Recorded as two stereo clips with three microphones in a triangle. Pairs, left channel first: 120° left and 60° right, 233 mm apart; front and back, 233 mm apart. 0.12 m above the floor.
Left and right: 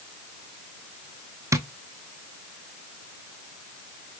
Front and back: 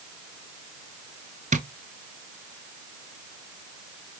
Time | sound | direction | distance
1.5 | tapping | 135° right | 0.7 m